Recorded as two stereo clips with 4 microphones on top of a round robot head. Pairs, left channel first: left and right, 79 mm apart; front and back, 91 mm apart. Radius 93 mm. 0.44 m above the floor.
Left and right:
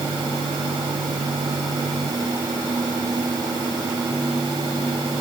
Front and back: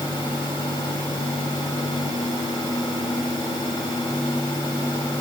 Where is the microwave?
No microwave in this recording.